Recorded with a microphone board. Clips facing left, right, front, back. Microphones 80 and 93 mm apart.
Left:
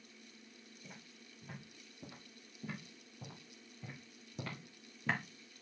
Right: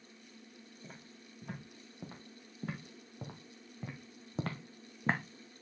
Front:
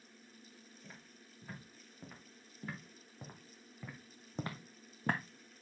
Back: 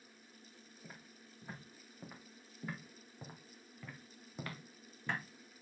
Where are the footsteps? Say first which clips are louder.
Right 3 dB, back 3 dB; 105° right, 4 m; by 5.2 s 35° right, 1.2 m.